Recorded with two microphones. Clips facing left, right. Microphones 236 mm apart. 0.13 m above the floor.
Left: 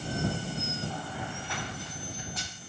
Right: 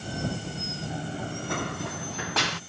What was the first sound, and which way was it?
Running footsteps, 20° right (ahead or behind).